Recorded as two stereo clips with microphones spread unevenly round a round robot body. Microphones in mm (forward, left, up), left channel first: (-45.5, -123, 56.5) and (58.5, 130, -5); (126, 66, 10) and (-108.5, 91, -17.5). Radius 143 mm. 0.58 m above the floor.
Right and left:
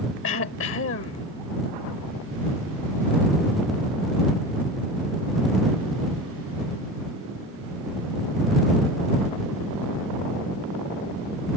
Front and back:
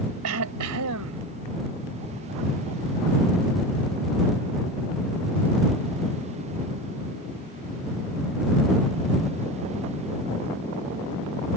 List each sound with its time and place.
0.2 s throat clearing: 160° right